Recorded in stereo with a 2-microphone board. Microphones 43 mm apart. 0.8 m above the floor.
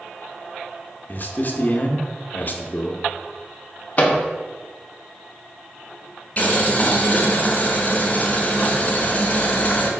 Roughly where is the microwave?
Left.